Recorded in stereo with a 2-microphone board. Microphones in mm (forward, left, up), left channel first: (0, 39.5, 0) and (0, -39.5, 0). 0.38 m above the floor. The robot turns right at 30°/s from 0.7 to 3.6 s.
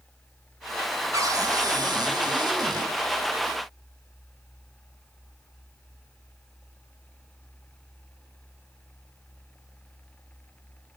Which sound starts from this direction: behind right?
A cupboard door, at 1.1 s.